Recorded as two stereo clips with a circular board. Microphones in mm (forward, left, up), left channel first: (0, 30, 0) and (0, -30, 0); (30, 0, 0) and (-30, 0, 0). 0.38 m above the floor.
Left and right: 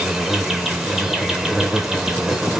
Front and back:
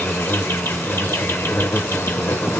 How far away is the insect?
About 0.8 m.